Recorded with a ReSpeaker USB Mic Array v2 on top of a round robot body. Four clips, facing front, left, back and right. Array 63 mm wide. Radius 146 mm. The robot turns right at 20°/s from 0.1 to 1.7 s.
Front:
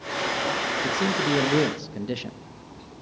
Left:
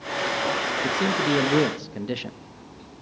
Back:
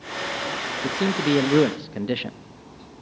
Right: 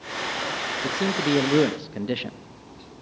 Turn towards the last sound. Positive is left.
turn(degrees=-165)